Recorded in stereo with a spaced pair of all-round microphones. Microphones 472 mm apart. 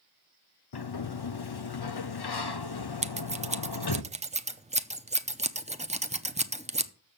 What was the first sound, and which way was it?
A sliding door, 55° left (ahead or behind).